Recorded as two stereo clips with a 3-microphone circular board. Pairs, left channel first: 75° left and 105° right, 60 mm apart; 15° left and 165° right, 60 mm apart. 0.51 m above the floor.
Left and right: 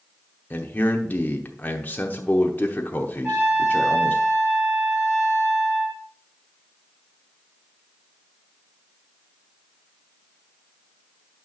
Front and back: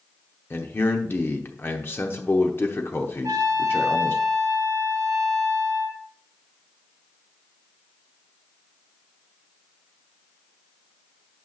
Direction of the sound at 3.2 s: 155° right.